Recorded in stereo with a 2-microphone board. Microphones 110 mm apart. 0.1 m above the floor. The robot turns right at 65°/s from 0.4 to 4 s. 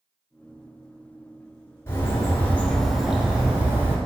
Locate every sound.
1.9 s a bird: 25° left (ahead or behind), 0.9 m; by 4.0 s 20° right (ahead or behind), 0.9 m